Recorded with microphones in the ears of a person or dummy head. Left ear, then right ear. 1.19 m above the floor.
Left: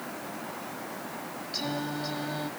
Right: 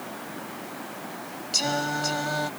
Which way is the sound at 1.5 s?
55° right (ahead or behind).